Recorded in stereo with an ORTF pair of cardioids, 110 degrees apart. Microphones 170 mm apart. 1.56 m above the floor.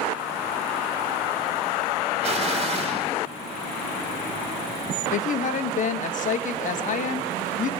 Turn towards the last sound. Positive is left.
turn(degrees=50)